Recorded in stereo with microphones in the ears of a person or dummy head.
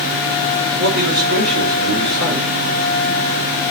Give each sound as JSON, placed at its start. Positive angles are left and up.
{"t": 0.8, "sound": "a man speaking", "side_deg": -55, "distance_m": 4.5}